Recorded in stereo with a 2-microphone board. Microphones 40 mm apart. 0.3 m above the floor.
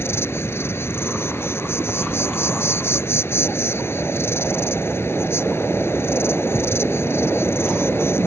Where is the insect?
70° left (ahead or behind).